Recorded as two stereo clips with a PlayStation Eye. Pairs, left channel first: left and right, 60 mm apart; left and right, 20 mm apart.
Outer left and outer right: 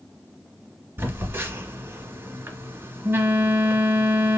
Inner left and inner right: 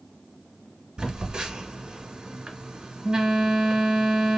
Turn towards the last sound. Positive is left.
turn(degrees=-45)  # may be behind; listen again after turning